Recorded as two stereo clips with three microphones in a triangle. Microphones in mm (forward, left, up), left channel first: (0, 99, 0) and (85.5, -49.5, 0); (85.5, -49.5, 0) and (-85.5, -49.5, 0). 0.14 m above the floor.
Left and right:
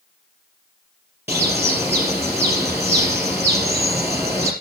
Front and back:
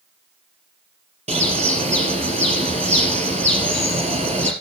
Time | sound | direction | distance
1.3 | a bird | 135° right | 4 m